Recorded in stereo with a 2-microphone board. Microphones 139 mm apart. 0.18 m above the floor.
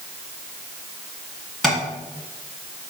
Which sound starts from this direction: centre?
Tapping, at 1.6 s.